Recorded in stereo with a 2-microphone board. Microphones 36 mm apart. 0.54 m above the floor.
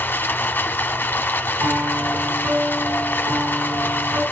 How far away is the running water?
About 1.2 m.